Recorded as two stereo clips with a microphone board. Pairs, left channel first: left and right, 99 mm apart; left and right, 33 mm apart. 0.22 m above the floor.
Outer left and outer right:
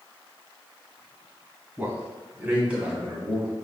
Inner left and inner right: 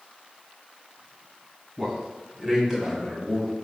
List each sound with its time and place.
1.8 s a man speaking: 15° right (ahead or behind), 1.1 m; by 3.5 s 5° right (ahead or behind), 1.6 m